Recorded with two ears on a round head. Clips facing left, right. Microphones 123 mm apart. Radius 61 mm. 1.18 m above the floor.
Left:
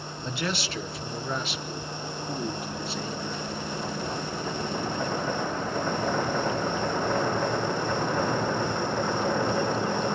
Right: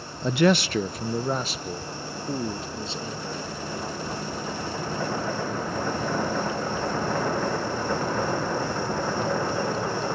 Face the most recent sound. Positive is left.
turn(degrees=-20)  # may be behind; listen again after turning